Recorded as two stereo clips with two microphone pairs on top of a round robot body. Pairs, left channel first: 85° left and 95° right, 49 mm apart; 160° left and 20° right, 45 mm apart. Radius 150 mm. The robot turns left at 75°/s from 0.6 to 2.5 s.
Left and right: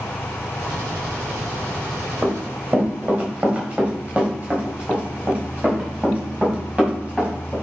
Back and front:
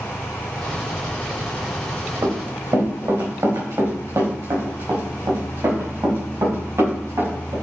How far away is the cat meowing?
No cat meowing in this recording.